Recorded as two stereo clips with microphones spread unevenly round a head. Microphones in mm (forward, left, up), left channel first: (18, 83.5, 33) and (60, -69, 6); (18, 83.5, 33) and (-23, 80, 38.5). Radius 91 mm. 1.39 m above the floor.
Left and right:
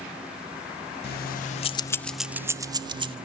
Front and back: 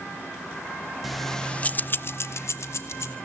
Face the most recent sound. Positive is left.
turn(degrees=-15)